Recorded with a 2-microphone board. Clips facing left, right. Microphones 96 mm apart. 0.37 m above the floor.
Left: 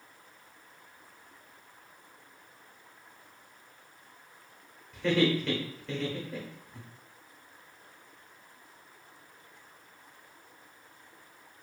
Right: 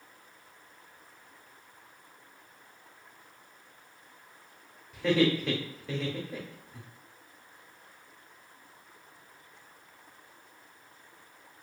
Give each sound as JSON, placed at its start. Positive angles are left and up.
{"t": 4.9, "sound": "laughter", "side_deg": -5, "distance_m": 0.9}